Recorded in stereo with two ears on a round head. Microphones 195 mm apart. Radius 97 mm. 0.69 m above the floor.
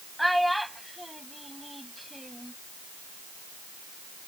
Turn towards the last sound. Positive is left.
turn(degrees=0)  # may be behind; listen again after turning